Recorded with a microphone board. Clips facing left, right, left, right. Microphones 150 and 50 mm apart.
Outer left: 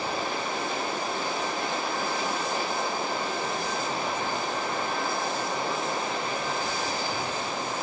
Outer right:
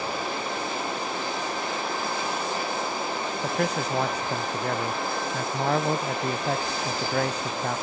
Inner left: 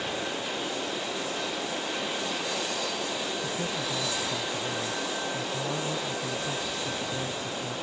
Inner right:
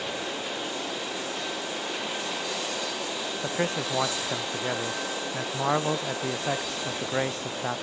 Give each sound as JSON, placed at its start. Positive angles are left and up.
{"t": 3.4, "sound": "a man speaking", "side_deg": -75}